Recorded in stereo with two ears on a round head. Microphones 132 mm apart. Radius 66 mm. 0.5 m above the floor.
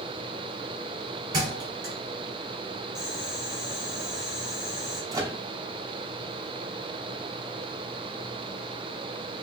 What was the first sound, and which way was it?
A thud, 25° right (ahead or behind).